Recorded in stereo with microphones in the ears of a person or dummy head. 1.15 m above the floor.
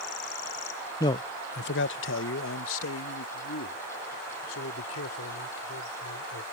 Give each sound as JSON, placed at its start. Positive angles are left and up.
{"t": 1.0, "sound": "a man speaking", "side_deg": 20}